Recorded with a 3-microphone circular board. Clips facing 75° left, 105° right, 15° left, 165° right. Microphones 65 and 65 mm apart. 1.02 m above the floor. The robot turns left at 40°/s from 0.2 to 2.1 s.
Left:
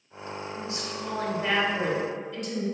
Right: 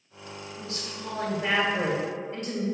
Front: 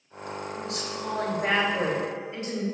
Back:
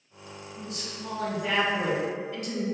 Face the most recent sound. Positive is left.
turn(degrees=-50)